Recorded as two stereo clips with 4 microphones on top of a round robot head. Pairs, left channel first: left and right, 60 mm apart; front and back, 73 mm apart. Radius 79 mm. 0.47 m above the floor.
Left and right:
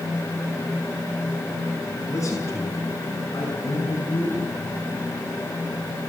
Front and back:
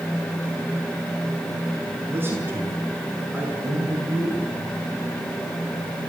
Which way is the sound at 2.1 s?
120° left.